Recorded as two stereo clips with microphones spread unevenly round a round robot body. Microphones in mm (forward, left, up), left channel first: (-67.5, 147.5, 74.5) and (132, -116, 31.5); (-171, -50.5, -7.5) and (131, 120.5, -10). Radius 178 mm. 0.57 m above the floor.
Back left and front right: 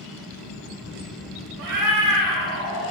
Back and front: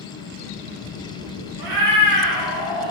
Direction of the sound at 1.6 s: Straight ahead.